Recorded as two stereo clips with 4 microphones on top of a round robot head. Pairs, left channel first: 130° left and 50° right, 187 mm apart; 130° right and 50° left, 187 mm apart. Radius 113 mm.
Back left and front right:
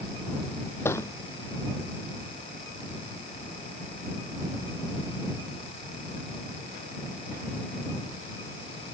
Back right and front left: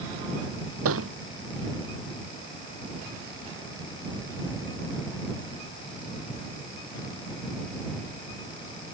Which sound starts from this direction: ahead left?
A thud, at 0.8 s.